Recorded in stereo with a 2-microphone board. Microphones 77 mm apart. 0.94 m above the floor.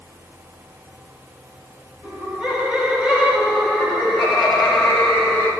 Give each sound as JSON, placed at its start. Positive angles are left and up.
{"t": 2.0, "sound": "laughter", "side_deg": -15, "distance_m": 7.0}